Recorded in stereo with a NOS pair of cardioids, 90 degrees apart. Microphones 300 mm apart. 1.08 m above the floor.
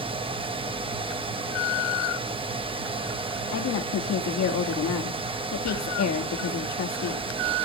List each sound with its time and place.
0.0 s a fan: 20° right, 1.1 m
3.5 s a woman speaking: 60° left, 1.7 m